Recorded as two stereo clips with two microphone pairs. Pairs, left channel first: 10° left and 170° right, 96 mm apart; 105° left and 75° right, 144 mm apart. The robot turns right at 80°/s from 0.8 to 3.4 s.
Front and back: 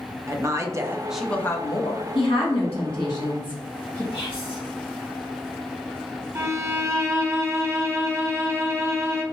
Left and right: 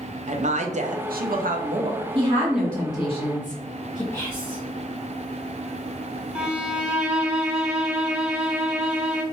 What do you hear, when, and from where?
0.3 s a woman speaking: 115° right, 0.5 m; by 2.0 s 15° right, 0.5 m
2.1 s a woman speaking: 25° right, 1.4 m; by 4.0 s 75° left, 1.4 m
4.1 s whispering: 30° left, 1.6 m
6.3 s a violin: 155° right, 0.5 m